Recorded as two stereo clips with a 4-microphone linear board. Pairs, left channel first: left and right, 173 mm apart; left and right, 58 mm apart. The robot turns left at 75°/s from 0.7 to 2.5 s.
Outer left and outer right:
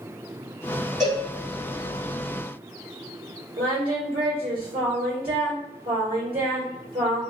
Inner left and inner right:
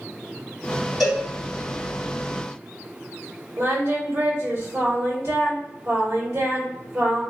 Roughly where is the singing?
Right.